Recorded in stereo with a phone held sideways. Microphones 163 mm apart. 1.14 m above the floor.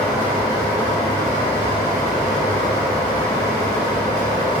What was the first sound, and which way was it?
A fan, 30° left (ahead or behind).